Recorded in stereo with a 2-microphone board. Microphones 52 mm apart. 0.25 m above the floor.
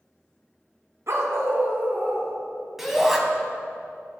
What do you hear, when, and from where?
1.1 s a dog barking: 60° right (ahead or behind), 0.8 m; by 2.4 s 30° right (ahead or behind), 1.8 m
2.8 s a shout: 5° right (ahead or behind), 1.3 m